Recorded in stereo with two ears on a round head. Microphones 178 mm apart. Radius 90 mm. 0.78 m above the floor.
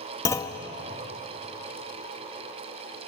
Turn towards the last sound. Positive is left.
turn(degrees=15)  # may be behind; listen again after turning